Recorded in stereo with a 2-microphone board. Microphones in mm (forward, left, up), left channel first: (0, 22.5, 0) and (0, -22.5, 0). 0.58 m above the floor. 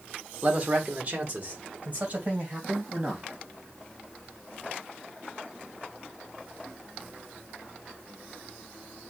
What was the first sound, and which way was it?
A man speaking, 30° right (ahead or behind).